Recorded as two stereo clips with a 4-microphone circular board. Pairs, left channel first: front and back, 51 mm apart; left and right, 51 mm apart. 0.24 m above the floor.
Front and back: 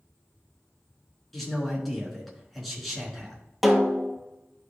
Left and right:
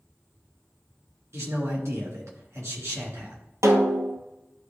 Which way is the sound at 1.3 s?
90° right.